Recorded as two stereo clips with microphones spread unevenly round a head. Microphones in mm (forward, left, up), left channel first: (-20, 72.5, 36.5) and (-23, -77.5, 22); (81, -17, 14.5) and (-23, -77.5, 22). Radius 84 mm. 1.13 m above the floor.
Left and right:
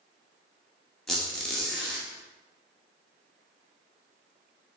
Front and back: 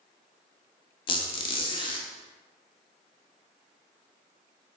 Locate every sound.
1.1 s a squeak: 10° left, 0.5 m